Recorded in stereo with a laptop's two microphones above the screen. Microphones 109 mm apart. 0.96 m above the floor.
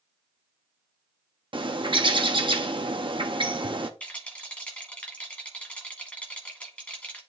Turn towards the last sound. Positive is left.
turn(degrees=10)  # may be behind; listen again after turning